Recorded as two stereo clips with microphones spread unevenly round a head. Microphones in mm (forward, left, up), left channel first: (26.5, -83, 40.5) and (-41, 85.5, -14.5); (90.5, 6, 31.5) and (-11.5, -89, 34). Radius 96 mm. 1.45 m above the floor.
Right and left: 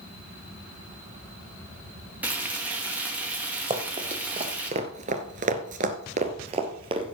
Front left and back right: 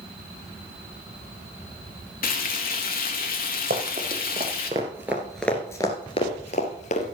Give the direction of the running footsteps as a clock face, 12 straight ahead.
6 o'clock.